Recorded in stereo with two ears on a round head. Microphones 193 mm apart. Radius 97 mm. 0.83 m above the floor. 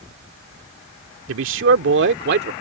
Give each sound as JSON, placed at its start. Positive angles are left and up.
{"t": 1.3, "sound": "a man speaking", "side_deg": -65}